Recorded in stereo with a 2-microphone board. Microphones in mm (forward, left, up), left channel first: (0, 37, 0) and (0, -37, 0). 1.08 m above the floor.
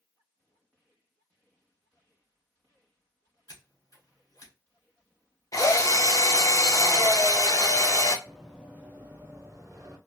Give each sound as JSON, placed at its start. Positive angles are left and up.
{"t": 3.5, "sound": "scissors", "side_deg": 60, "distance_m": 2.5}
{"t": 5.5, "sound": "a drill", "side_deg": 45, "distance_m": 0.6}
{"t": 8.3, "sound": "running footsteps", "side_deg": 0, "distance_m": 1.4}